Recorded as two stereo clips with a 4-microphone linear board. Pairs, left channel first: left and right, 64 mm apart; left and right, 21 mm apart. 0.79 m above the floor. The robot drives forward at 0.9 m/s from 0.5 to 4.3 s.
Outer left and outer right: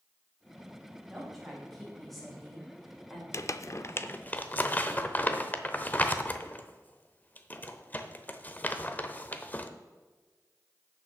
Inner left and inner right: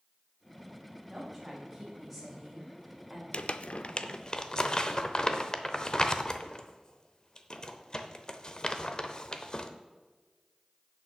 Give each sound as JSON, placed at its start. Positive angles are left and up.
{"t": 1.1, "sound": "a woman speaking", "side_deg": 0, "distance_m": 5.0}
{"t": 3.3, "sound": "crumpling", "side_deg": 45, "distance_m": 0.5}